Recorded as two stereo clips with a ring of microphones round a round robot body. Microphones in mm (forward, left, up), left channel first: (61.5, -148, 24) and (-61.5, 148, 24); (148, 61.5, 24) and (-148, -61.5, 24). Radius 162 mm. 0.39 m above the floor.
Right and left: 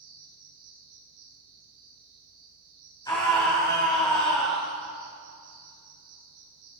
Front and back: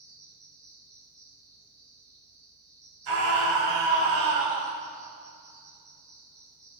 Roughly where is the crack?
No crack in this recording.